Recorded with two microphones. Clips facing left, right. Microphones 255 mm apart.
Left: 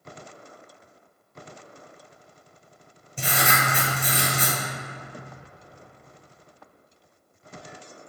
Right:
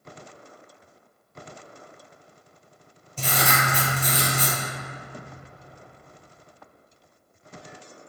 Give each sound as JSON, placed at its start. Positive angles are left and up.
{"t": 3.2, "sound": "writing", "side_deg": 10, "distance_m": 1.3}